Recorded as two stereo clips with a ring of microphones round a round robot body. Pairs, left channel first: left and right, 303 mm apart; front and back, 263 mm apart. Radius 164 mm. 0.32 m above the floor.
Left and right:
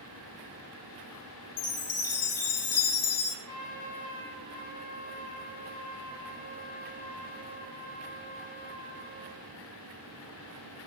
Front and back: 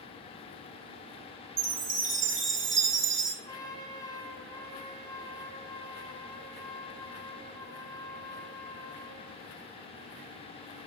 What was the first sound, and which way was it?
A chime, 135° left.